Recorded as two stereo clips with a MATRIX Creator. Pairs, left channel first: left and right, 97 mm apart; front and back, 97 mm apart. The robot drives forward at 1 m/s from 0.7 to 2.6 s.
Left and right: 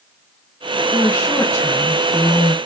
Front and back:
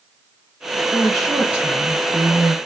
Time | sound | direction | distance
0.9 | a woman speaking | 65° left | 1.2 m